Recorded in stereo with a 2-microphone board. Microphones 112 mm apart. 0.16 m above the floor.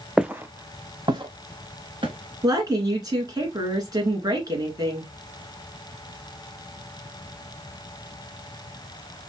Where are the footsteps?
5° right (ahead or behind), 0.5 m; by 2.1 s 55° right (ahead or behind), 1.6 m.